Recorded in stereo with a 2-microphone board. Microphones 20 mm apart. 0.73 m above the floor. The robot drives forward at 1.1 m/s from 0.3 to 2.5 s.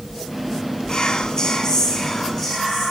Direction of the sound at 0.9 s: 40° left (ahead or behind).